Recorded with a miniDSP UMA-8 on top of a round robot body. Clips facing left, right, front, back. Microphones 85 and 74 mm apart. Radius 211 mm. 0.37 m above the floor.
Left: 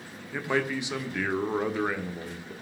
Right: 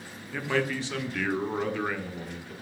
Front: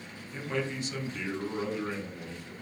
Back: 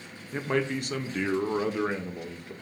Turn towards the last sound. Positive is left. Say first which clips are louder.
# even, back 5 dB
turn(degrees=160)